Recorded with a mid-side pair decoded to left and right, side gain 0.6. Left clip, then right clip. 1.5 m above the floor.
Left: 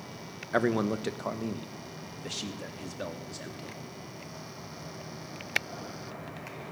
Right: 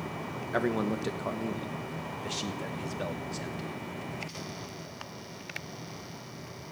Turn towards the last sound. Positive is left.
turn(degrees=0)